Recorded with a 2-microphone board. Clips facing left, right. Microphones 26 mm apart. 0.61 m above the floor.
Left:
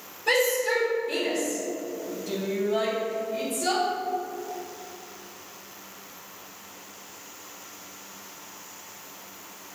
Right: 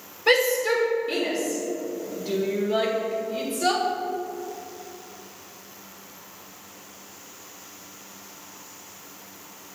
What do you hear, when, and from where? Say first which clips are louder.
0.3 s a shout: right 3 dB; 50° right (ahead or behind), 2.0 m